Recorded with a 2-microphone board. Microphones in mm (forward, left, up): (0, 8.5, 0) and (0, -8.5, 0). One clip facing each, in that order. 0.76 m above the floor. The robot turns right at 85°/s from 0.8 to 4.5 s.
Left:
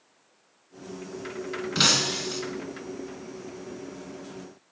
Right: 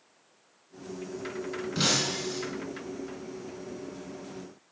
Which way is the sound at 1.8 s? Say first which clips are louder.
Left 5 dB; 60° left.